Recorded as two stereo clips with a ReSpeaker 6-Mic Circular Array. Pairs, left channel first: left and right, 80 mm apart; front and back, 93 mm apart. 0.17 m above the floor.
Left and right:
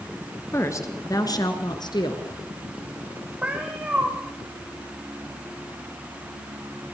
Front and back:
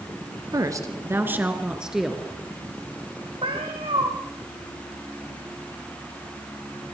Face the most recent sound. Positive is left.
turn(degrees=-165)